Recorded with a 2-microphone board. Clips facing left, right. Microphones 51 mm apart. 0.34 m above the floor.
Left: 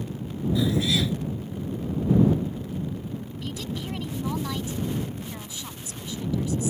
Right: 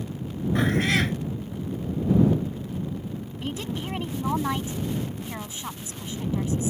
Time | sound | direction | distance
0.6 | a cat meowing | 60° right (ahead or behind) | ?
3.4 | a woman speaking | 35° right (ahead or behind) | ?